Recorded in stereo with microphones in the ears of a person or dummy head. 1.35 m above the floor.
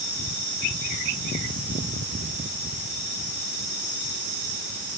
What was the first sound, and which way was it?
Only background noise.